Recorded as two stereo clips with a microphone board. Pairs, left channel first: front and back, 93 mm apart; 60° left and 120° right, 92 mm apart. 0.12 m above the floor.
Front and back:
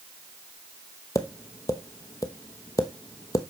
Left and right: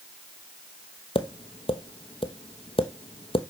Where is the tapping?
50° left, 0.9 m.